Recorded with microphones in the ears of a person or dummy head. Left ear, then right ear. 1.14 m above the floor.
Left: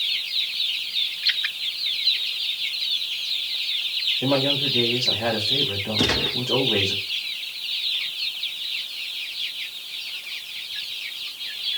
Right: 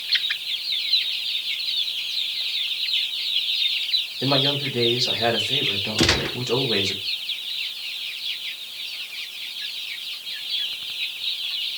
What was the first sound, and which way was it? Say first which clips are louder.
A man speaking: right 2 dB; 25° right (ahead or behind).